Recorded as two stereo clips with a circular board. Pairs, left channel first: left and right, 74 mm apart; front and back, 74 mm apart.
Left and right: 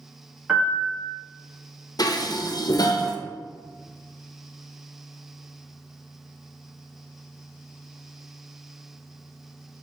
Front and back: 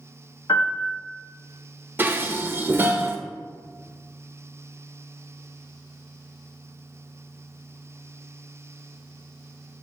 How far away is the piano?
About 1.7 m.